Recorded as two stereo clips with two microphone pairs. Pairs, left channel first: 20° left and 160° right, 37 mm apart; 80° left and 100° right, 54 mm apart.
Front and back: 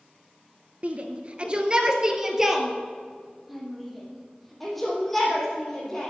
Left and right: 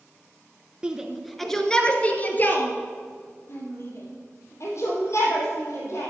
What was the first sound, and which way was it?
A shout, 165° right.